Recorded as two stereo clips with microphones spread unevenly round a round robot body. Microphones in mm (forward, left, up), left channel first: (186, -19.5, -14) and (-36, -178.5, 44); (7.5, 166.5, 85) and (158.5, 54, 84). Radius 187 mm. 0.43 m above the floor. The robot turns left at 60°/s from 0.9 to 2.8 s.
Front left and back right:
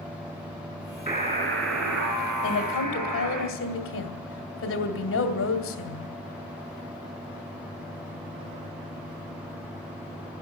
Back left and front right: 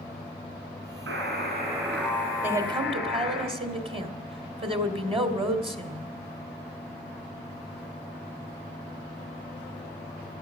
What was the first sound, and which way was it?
A buzzer, 70° right.